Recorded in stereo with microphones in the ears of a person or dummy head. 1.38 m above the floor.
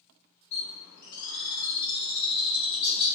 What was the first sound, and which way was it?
A bird, 55° left (ahead or behind).